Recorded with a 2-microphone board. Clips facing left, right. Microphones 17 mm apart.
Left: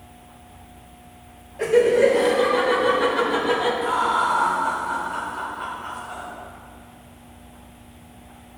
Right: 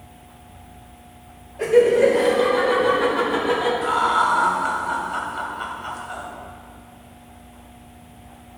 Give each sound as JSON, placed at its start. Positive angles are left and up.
{"t": 1.6, "sound": "laughter", "side_deg": 15, "distance_m": 1.4}
{"t": 3.8, "sound": "laughter", "side_deg": -50, "distance_m": 1.8}